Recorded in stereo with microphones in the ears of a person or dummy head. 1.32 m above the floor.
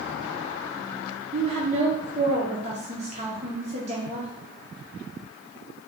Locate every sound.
1.3 s a woman speaking: 35° right (ahead or behind), 0.8 m